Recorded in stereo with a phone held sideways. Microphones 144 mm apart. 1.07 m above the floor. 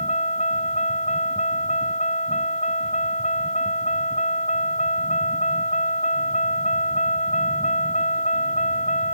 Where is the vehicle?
50° left (ahead or behind); by 9.2 s 55° left (ahead or behind).